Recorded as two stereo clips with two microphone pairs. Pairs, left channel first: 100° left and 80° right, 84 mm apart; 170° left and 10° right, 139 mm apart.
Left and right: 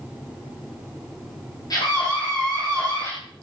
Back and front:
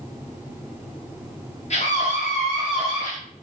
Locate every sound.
1.7 s a scream: 140° left, 4 m; by 3.1 s 135° left, 5 m